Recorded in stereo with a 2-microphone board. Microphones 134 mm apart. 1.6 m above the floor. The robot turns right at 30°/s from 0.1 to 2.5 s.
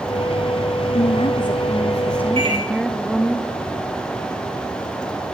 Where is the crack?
I don't hear a crack.